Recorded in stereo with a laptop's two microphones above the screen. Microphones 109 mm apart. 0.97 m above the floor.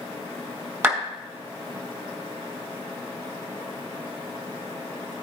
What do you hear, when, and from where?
0.8 s a clap: 20° right (ahead or behind), 5 m